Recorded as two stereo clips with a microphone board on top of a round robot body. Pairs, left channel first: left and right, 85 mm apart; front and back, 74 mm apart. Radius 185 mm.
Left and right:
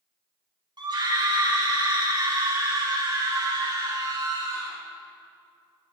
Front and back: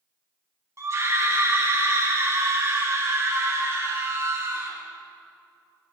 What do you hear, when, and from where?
0.8 s a scream: 130° right, 4.5 m; by 4.8 s 125° right, 8.5 m